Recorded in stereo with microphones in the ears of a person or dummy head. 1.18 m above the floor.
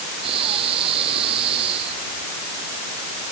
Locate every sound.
0.2 s breathing: 30° right (ahead or behind)